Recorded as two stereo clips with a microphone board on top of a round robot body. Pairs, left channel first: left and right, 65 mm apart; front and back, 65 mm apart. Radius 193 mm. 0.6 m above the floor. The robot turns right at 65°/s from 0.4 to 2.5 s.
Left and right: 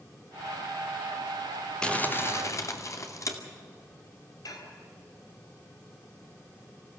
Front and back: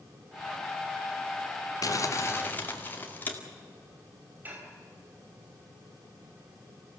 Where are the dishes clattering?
115° left, 3 m.